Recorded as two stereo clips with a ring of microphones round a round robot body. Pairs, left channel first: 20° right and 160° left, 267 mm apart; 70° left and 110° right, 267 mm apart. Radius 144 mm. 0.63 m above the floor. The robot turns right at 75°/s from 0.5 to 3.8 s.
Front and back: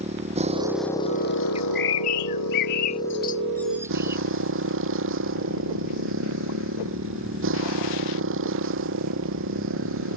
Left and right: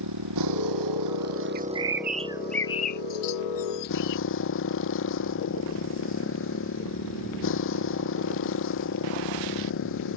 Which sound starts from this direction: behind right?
A motorcycle, at 0.0 s.